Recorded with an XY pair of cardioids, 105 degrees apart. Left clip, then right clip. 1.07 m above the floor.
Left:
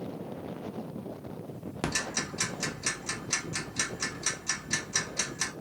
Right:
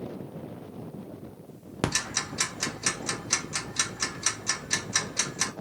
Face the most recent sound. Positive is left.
turn(degrees=-40)